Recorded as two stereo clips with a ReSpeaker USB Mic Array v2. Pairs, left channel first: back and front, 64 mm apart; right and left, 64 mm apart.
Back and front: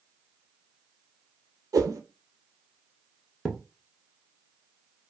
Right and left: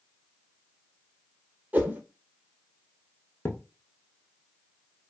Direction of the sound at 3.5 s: 80° right.